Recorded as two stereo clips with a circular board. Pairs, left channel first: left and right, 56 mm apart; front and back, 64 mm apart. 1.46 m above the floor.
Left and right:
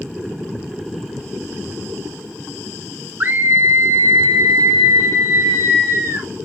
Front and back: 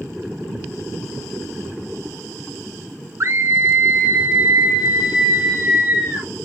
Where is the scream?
140° right, 0.7 m; by 6.3 s 115° right, 3.5 m.